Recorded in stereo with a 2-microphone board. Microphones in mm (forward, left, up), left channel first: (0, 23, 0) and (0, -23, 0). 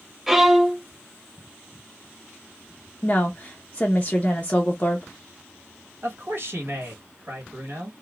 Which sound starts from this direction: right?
A man speaking, at 6.0 s.